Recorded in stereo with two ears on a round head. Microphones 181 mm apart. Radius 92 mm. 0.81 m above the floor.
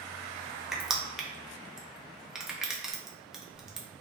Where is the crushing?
Centre (ahead or behind), 0.6 m.